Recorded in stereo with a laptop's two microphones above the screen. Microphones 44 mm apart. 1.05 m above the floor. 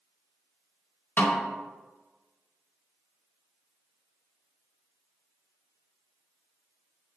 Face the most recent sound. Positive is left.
turn(degrees=50)  # may be behind; listen again after turning